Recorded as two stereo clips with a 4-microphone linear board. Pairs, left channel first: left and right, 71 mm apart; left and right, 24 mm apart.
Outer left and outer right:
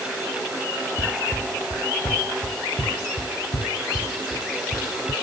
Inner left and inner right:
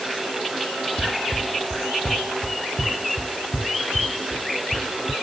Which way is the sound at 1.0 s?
75° left (ahead or behind).